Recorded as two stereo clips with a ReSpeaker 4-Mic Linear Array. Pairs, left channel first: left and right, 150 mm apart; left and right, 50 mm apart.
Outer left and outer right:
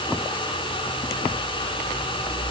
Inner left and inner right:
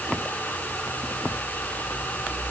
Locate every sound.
Only background noise.